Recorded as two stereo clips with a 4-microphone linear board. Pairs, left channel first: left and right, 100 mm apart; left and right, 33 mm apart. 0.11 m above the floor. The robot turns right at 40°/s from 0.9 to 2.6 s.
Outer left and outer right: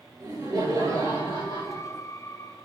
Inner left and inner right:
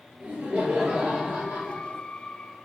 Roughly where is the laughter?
Behind right.